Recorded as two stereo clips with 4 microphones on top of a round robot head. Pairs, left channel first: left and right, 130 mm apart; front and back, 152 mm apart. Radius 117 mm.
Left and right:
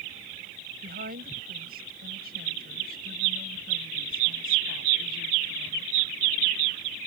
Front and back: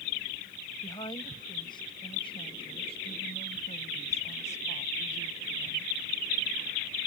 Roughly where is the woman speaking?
Right.